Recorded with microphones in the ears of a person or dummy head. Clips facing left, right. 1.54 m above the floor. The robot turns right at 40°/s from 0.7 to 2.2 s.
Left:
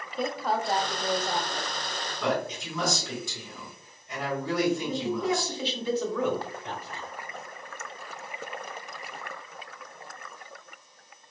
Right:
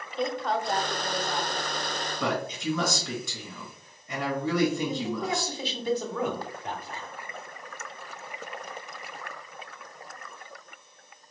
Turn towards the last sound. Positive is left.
turn(degrees=-45)  # may be behind; listen again after turning